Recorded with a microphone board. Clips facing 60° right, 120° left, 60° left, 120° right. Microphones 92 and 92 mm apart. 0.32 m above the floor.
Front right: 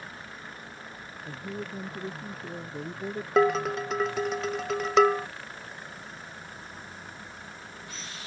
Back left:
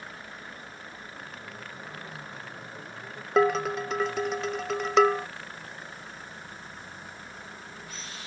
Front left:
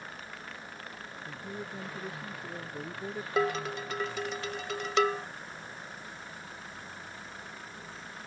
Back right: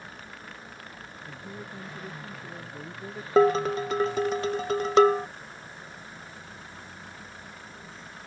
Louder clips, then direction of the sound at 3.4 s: Even, back right 10 dB; 150° right.